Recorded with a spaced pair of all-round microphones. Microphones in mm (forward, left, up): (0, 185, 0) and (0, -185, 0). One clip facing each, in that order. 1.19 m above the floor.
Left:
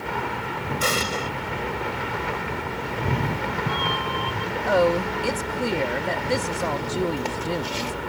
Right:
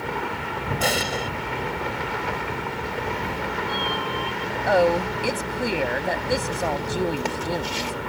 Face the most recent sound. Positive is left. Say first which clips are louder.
# right 1 dB
turn(degrees=5)  # may be behind; listen again after turning